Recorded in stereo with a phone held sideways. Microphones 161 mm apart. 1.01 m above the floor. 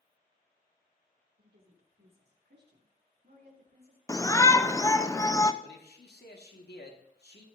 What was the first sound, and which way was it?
A woman speaking, 65° right (ahead or behind).